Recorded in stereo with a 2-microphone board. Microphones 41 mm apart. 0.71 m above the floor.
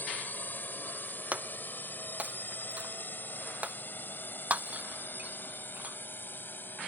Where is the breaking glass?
35° right (ahead or behind).